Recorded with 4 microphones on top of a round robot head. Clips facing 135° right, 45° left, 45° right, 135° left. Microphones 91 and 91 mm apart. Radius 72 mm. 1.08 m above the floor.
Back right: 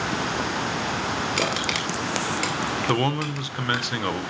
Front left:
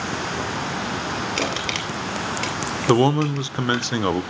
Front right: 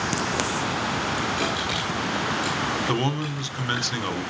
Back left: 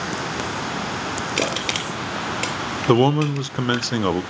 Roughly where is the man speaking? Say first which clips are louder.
Front left 9 dB, back left 9 dB; left.